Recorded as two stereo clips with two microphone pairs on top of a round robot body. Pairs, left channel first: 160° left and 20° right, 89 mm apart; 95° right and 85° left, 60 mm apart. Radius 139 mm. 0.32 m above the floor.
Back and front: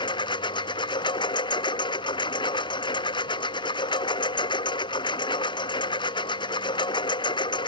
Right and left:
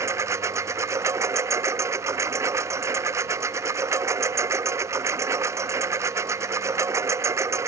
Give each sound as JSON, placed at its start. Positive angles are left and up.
{"t": 0.0, "sound": "a lawn mower", "azimuth_deg": 125}